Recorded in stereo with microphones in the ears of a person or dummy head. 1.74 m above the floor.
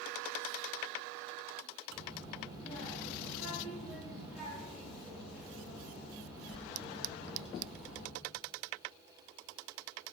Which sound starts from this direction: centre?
A child speaking, at 1.9 s.